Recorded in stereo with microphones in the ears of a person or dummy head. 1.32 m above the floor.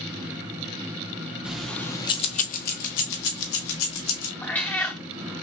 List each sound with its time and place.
1.4 s keys jangling: 5° right (ahead or behind), 0.7 m; by 4.3 s 75° left (ahead or behind), 1.4 m
4.4 s a cat meowing: 5° left (ahead or behind), 0.7 m